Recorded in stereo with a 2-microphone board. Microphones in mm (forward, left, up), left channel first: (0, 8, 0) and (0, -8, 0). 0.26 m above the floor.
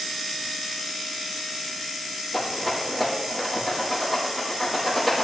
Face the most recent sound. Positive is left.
turn(degrees=-5)  # may be behind; listen again after turning